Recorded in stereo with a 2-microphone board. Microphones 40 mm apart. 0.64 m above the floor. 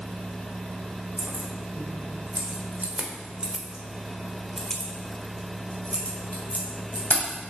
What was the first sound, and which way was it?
Keys jangling, 70° right (ahead or behind).